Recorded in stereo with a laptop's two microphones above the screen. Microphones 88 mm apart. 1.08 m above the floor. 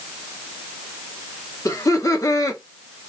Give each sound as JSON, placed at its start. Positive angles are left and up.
{"t": 1.6, "sound": "laughter", "side_deg": 35, "distance_m": 0.8}